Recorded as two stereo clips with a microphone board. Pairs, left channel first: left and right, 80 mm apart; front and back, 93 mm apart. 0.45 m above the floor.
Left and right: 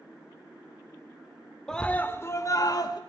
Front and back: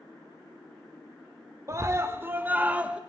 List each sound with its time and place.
1.7 s a scream: 170° left, 1.0 m; by 3.0 s 105° left, 1.6 m